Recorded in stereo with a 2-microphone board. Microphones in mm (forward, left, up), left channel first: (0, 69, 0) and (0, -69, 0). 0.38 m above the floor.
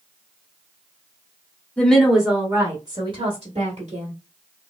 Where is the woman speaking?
10° left (ahead or behind), 0.9 m; by 4.1 s 55° right (ahead or behind), 1.5 m.